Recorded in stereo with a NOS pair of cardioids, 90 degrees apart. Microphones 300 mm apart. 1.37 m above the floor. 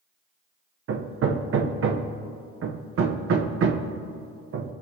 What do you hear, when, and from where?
0.9 s hammering: 45° right, 0.9 m